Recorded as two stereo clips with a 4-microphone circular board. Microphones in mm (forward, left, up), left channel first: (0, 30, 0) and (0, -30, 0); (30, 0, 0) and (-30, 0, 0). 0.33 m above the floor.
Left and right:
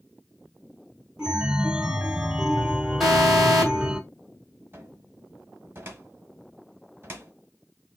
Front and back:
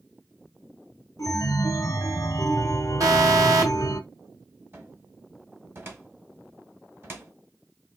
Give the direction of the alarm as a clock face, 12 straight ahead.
6 o'clock.